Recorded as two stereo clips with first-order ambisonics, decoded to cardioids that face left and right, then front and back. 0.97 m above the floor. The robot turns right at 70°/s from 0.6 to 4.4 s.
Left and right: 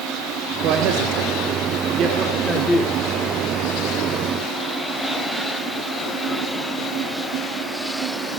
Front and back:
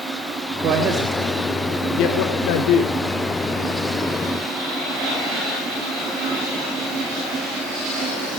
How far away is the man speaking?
About 2 m.